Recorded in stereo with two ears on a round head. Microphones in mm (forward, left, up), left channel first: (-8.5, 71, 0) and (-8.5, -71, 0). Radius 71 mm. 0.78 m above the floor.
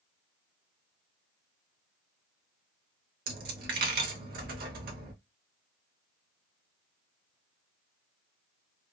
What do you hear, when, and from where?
3.3 s a dropped coin: 60° right (ahead or behind), 0.8 m